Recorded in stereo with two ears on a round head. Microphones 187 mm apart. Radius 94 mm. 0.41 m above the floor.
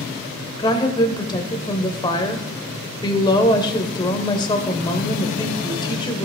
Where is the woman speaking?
20° left (ahead or behind), 1.2 m.